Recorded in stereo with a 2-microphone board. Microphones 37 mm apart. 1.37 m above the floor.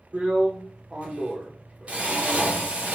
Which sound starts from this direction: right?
A drill, at 0.1 s.